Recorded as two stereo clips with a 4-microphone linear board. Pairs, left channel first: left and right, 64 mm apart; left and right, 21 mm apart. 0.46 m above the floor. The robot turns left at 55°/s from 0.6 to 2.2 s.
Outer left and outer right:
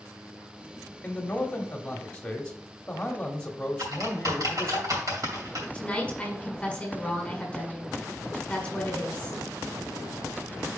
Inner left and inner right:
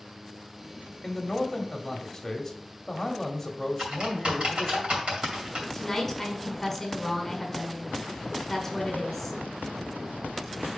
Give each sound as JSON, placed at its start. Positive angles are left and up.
{"t": 1.0, "sound": "a man speaking", "side_deg": 20, "distance_m": 1.1}
{"t": 3.8, "sound": "typing on a keyboard", "side_deg": -65, "distance_m": 2.5}
{"t": 5.7, "sound": "a woman speaking", "side_deg": 20, "distance_m": 1.7}